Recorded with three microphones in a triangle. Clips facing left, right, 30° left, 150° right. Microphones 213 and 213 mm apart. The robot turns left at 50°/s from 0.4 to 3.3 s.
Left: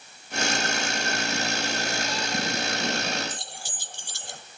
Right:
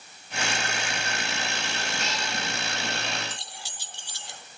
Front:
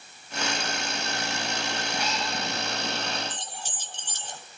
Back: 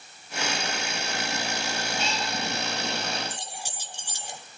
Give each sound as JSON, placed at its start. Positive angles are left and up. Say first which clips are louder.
{"t": 2.0, "sound": "a cat meowing", "louder": "left 3 dB, even", "azimuth_deg": -85, "distance_m": 5.0}
{"t": 3.3, "sound": "keys jangling", "louder": "left 3 dB, back 1 dB", "azimuth_deg": 135, "distance_m": 1.7}